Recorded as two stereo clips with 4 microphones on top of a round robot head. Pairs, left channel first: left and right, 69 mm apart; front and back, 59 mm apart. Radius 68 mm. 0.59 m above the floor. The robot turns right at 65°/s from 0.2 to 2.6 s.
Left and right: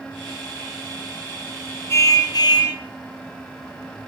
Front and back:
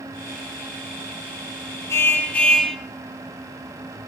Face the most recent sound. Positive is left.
turn(degrees=80)